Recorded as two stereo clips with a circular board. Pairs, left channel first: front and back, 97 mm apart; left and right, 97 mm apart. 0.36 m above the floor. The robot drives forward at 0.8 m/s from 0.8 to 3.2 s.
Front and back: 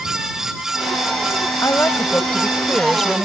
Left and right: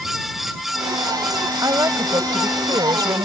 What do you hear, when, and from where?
1.6 s a woman speaking: 50° right; by 3.2 s 95° right